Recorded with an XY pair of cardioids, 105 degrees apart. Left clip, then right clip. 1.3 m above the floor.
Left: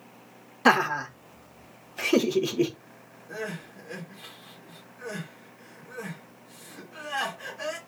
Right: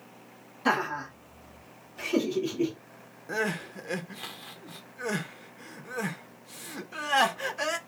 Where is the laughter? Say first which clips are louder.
Left 6 dB; 60° left, 1.0 m.